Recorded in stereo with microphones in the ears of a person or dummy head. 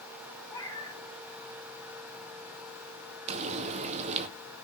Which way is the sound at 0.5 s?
20° left (ahead or behind).